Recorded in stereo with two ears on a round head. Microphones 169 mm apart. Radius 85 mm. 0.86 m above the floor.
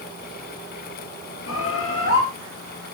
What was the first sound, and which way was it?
A bird, 75° left (ahead or behind).